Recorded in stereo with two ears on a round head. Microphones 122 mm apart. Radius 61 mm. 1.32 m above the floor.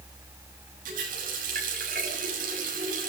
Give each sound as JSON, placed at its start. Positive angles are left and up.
{"t": 0.8, "sound": "a running tap", "side_deg": -70, "distance_m": 6.5}